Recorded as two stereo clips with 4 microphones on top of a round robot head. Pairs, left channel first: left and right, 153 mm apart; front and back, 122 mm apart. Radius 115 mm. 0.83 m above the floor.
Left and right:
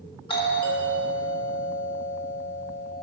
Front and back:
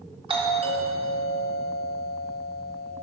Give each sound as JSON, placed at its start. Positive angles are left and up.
{"t": 0.3, "sound": "a doorbell", "azimuth_deg": 145, "distance_m": 1.7}